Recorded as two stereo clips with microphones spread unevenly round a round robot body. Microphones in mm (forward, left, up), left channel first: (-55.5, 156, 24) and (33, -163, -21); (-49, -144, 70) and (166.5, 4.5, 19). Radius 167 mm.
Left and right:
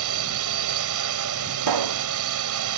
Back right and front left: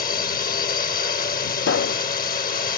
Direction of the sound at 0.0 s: 90° right.